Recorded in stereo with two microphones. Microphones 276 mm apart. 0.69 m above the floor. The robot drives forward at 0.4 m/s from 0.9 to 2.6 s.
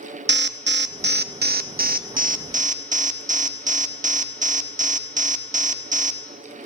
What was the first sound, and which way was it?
An alarm, 40° right (ahead or behind).